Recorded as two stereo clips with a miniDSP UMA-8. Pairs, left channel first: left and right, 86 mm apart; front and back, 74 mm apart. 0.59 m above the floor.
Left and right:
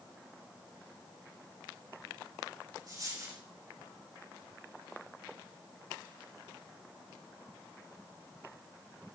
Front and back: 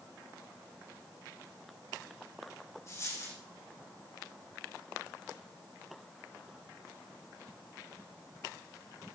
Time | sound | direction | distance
2.9 | a dropped coin | 50° right | 6 m